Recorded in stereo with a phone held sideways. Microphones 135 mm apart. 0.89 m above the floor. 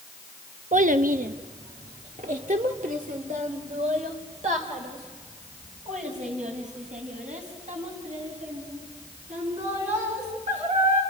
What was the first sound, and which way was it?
A child speaking, 65° right (ahead or behind).